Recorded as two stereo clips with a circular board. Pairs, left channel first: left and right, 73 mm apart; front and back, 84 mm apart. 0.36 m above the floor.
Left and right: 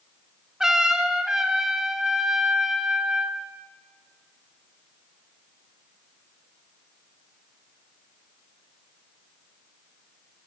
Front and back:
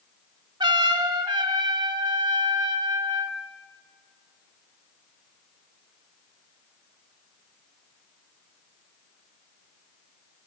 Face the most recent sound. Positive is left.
turn(degrees=-170)